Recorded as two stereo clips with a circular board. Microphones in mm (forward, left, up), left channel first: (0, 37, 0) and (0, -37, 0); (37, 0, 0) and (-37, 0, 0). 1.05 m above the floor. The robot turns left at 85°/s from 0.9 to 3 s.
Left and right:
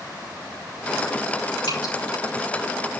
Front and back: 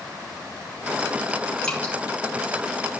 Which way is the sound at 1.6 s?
80° left.